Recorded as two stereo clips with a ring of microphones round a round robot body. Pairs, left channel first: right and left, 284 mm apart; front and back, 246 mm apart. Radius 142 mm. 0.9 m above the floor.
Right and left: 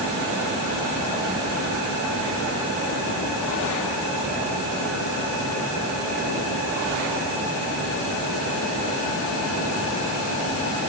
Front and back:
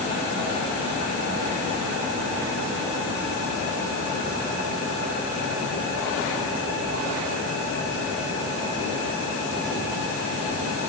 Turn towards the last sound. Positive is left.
No sound to turn to.